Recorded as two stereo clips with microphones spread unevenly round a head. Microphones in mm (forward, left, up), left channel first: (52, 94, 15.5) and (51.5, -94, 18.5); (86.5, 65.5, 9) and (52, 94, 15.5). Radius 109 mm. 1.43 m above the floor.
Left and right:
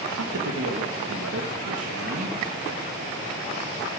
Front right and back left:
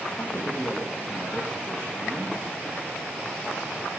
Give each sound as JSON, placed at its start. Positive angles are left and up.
{"t": 0.2, "sound": "a man speaking", "azimuth_deg": -115, "distance_m": 1.4}